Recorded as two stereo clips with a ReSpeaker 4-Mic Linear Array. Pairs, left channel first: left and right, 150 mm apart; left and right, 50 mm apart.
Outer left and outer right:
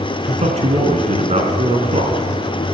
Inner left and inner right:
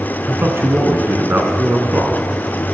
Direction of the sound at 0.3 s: 50° right (ahead or behind).